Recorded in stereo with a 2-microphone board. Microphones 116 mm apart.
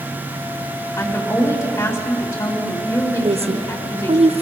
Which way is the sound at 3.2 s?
65° right (ahead or behind).